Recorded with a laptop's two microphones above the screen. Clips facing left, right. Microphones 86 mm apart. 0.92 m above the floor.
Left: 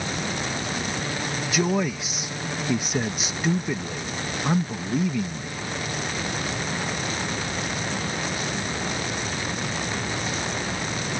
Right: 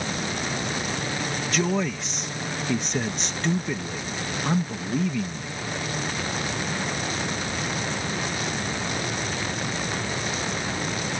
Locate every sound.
1.5 s a man speaking: 5° left (ahead or behind)